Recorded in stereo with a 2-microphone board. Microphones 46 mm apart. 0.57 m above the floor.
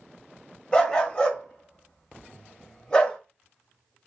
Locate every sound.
0.7 s a dog barking: 20° left (ahead or behind), 0.9 m